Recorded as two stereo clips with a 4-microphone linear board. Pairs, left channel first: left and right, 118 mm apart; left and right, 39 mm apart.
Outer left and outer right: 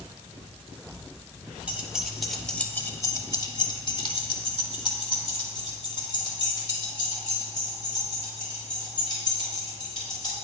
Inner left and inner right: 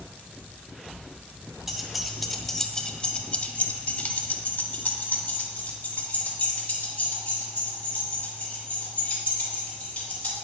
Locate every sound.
1.7 s keys jangling: 10° right (ahead or behind), 1.0 m; by 10.3 s 40° left (ahead or behind), 4.5 m